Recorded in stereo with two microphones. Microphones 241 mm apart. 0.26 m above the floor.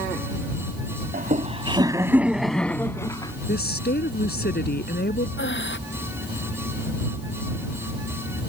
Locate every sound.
1.1 s laughter: 40° right (ahead or behind); by 3.3 s 15° left (ahead or behind)
3.5 s a woman speaking: 45° left (ahead or behind)
5.4 s breathing: 50° left (ahead or behind)